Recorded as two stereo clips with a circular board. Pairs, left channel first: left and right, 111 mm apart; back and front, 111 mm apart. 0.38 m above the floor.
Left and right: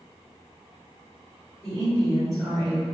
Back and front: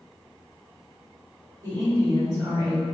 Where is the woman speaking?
5° left, 1.4 m.